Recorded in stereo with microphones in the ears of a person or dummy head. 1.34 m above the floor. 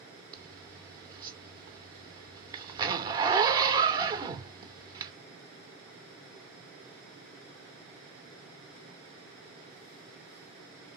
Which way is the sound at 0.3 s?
20° right (ahead or behind).